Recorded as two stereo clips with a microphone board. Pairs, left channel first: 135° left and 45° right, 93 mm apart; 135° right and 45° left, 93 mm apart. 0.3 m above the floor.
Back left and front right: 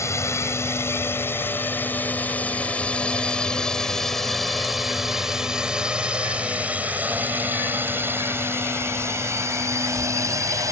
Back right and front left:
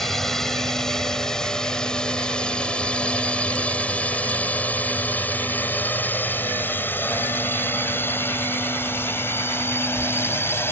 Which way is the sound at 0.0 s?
140° left.